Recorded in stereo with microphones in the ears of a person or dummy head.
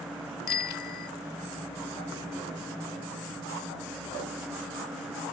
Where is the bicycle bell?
60° left (ahead or behind).